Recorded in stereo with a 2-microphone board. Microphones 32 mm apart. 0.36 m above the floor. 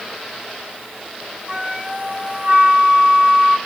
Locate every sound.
1.5 s a flute: 35° right (ahead or behind), 1.1 m